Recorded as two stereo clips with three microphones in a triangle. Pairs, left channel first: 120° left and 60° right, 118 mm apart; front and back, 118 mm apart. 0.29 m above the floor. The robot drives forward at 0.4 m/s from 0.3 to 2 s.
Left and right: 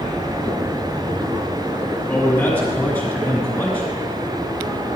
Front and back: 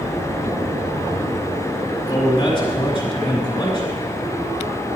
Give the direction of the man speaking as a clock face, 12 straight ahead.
10 o'clock.